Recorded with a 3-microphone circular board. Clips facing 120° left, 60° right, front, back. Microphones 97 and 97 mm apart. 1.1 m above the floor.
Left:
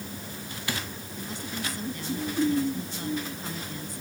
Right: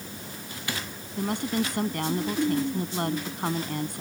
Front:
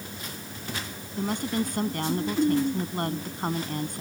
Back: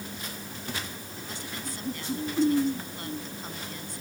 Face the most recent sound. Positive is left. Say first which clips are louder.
# right 10 dB, front 15 dB
turn(degrees=-35)